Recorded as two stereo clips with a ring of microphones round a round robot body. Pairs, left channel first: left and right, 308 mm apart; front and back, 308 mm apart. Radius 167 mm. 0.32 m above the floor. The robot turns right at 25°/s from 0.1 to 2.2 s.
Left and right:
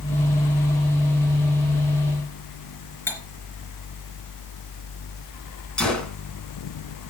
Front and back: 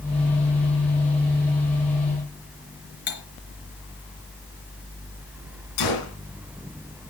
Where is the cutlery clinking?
5° left, 3.5 m.